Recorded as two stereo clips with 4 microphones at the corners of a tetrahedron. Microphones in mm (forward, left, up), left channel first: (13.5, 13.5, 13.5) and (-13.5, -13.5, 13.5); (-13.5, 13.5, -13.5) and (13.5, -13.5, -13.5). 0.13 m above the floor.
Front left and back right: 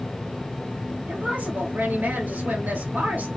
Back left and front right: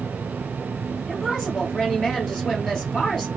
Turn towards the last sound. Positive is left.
turn(degrees=-140)